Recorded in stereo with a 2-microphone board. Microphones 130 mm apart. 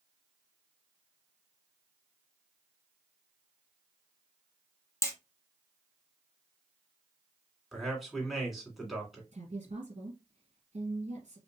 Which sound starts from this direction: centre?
A man speaking, at 7.7 s.